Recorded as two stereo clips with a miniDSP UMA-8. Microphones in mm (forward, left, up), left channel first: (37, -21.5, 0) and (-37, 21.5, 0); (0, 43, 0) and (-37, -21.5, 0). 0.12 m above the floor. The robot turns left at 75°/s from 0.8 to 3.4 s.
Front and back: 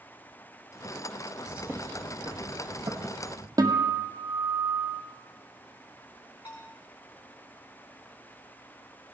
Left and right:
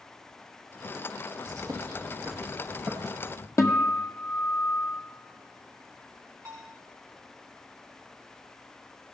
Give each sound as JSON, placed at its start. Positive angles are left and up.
{"t": 1.5, "sound": "a bird", "azimuth_deg": -130, "distance_m": 2.0}
{"t": 3.6, "sound": "a guitar", "azimuth_deg": 105, "distance_m": 1.7}
{"t": 6.5, "sound": "a bell", "azimuth_deg": -60, "distance_m": 4.0}